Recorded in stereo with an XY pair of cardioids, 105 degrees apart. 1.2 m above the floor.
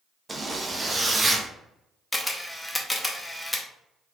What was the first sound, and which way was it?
A zipper, 20° right.